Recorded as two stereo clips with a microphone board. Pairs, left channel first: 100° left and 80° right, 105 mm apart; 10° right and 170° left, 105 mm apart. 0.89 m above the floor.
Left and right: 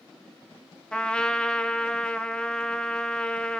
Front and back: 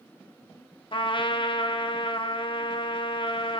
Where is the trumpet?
20° left, 0.5 m.